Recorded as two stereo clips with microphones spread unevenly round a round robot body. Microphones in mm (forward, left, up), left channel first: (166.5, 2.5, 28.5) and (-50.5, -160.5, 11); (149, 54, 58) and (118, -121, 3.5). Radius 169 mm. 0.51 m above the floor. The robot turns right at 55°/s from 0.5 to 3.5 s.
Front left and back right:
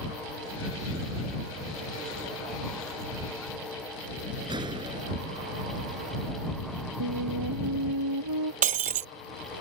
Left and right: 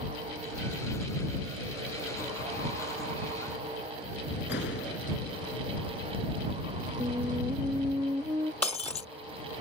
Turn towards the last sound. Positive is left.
turn(degrees=150)